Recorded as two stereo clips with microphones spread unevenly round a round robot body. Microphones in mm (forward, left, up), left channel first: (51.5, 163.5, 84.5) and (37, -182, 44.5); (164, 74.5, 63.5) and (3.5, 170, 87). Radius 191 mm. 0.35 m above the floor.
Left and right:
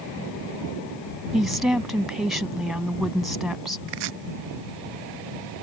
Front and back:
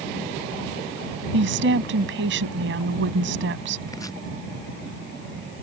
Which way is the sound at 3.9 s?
110° right.